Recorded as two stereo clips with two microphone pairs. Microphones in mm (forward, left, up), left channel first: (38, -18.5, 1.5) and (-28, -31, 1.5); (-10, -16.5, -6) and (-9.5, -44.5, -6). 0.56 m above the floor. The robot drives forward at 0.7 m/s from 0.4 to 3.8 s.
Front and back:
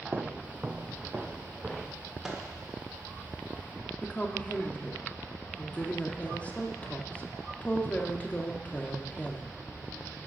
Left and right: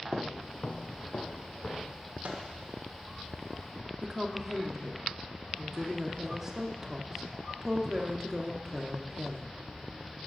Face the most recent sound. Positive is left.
turn(degrees=-40)